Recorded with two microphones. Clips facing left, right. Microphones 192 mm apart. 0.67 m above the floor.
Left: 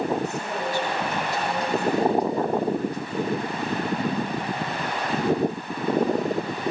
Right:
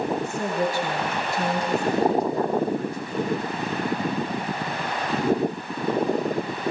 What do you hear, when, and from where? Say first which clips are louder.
0.2 s a woman speaking: right 3 dB; 55° right (ahead or behind), 9.5 m